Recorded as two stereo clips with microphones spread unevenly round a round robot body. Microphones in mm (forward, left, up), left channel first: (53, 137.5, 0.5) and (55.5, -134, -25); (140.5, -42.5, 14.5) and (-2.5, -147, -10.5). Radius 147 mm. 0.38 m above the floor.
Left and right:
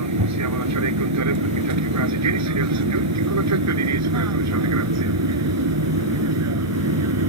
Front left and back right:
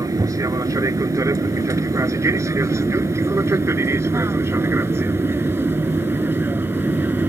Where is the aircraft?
75° right; by 7.3 s 65° right.